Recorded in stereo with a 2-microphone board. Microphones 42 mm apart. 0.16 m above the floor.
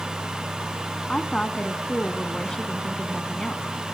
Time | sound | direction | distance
1.1 | a woman speaking | 20° left (ahead or behind) | 1.1 m